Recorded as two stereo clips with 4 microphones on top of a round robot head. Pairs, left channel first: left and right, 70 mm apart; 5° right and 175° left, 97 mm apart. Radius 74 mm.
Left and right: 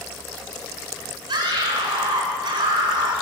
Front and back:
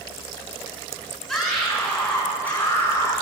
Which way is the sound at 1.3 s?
90° right.